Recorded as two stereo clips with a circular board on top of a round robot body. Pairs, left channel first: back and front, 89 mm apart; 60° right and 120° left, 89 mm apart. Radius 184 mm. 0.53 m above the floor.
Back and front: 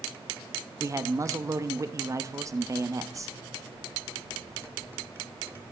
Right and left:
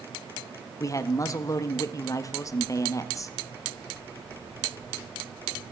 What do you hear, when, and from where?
0.8 s a man speaking: 30° right, 1.0 m